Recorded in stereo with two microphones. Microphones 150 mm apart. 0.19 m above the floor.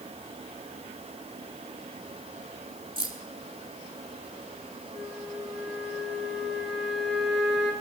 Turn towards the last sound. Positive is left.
turn(degrees=0)  # may be behind; listen again after turning